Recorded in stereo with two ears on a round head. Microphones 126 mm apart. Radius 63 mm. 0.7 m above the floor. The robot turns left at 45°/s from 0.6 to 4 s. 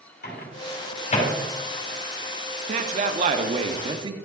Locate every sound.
0.2 s a microwave: 65° left (ahead or behind), 3 m; by 1.3 s 35° left (ahead or behind), 3 m
2.7 s a man speaking: 75° right, 1.0 m; by 4.1 s 135° right, 1.0 m